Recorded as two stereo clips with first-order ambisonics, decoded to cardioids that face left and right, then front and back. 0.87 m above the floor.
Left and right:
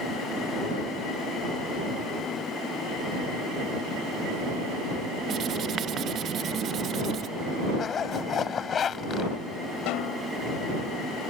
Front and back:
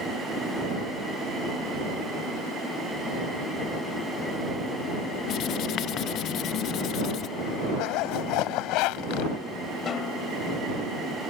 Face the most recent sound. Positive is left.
turn(degrees=60)